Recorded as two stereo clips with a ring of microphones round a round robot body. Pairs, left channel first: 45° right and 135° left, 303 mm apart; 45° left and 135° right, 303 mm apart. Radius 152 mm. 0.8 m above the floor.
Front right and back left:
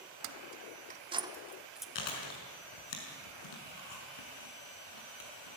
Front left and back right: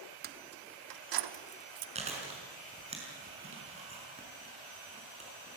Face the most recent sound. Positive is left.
turn(degrees=-65)